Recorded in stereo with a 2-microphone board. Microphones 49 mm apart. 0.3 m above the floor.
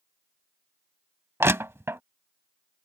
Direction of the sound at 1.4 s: 60° right (ahead or behind).